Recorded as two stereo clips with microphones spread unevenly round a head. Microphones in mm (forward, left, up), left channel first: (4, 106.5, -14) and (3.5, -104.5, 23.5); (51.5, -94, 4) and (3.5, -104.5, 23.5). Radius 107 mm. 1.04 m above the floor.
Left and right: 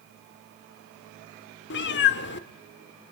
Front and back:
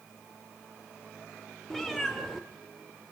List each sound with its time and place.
1.7 s a cat meowing: 120° left, 0.8 m